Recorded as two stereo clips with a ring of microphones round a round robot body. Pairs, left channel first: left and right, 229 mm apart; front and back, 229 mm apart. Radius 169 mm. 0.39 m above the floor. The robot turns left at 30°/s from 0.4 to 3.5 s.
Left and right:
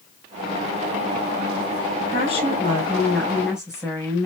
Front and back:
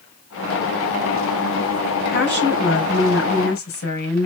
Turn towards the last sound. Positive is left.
turn(degrees=-5)